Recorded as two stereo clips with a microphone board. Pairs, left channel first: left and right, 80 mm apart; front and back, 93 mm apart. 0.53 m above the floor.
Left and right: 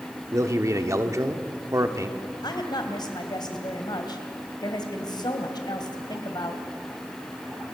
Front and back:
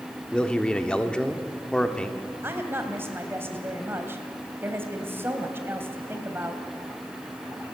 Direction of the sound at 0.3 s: 75° right.